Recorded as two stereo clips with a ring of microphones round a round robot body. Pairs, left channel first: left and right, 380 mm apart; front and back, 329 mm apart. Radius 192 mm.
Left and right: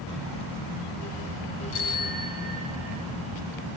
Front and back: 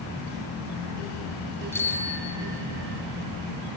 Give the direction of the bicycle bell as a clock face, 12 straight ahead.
9 o'clock.